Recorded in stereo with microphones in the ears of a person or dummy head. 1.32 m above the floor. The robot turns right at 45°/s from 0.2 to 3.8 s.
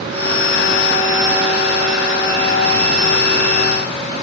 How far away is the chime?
No chime in this recording.